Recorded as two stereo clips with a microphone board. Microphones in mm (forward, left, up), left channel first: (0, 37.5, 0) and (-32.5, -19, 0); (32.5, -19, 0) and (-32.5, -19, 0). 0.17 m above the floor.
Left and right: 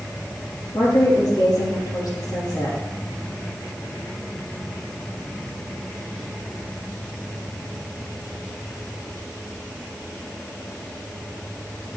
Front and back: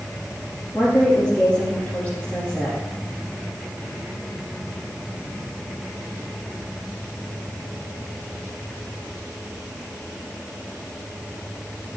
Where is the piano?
I don't hear a piano.